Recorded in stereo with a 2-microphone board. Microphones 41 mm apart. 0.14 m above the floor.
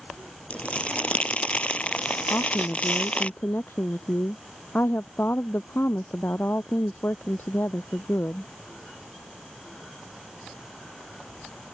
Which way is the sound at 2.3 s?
65° left (ahead or behind).